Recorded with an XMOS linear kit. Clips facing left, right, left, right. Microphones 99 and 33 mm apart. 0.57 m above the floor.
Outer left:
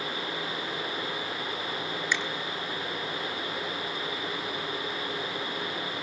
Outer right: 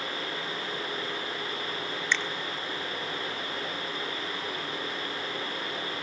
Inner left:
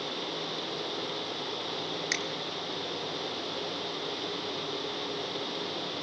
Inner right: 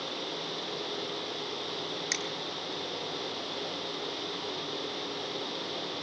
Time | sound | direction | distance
2.1 | a finger snap | 10° left (ahead or behind) | 1.4 m